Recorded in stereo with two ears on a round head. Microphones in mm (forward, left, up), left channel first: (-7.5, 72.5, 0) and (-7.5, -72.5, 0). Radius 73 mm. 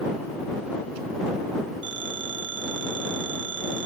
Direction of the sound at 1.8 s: 90° right.